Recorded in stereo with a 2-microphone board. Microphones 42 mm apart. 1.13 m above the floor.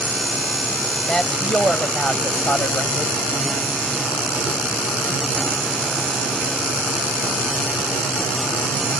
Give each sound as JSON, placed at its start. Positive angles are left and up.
{"t": 1.1, "sound": "a woman speaking", "side_deg": 20}